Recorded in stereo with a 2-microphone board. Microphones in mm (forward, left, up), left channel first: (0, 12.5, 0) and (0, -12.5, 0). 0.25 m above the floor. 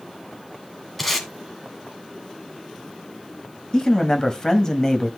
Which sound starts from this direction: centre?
Tape being pulled, at 1.0 s.